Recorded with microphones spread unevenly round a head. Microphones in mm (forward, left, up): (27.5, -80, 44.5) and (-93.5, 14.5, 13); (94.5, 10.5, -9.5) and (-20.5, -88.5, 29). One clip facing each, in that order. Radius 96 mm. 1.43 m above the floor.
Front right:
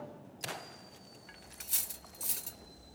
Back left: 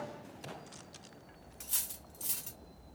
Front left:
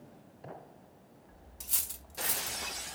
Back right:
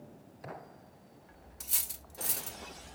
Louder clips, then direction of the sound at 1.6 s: Even, front left 1 dB; 85° right.